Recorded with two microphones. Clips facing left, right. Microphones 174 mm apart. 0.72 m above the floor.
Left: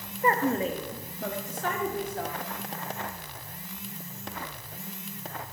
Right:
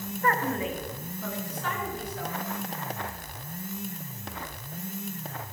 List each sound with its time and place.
0.2 s a woman speaking: 20° left (ahead or behind), 0.7 m; by 2.3 s 50° left (ahead or behind), 2 m